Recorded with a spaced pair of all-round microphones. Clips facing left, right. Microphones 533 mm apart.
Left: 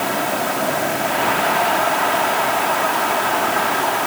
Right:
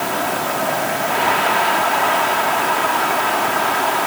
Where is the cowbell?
No cowbell in this recording.